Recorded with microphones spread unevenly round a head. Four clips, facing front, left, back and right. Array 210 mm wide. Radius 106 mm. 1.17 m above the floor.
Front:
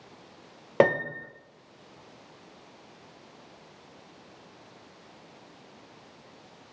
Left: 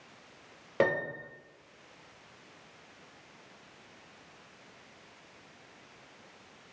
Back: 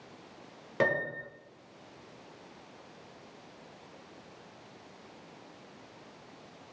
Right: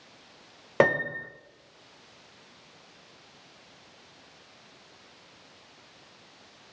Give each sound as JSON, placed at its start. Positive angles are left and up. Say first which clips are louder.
{"t": 0.8, "sound": "a piano", "louder": "right 5 dB, front 7 dB", "azimuth_deg": -30, "distance_m": 0.8}